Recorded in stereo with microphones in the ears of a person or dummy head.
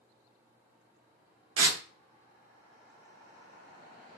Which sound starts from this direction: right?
Tearing paper, at 1.6 s.